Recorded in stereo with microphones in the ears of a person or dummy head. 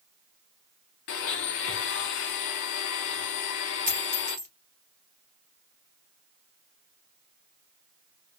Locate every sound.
1.1 s a blender: 55° left (ahead or behind), 0.8 m
3.9 s a dropped coin: 45° right (ahead or behind), 2 m